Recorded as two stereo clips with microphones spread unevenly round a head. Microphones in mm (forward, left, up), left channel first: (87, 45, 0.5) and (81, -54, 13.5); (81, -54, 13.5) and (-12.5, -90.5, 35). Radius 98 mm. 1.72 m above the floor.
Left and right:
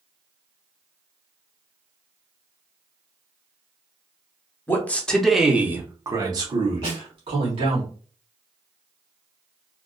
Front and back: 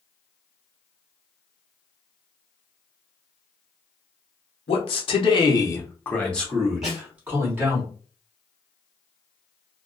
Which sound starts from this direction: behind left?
A snare drum, at 6.8 s.